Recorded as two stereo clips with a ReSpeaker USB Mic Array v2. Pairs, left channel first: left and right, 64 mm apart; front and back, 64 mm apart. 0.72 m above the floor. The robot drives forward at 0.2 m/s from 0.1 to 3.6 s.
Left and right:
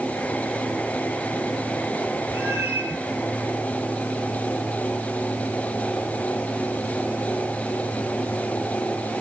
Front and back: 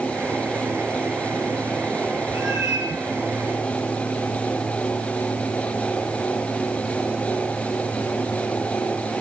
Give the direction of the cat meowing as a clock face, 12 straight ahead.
5 o'clock.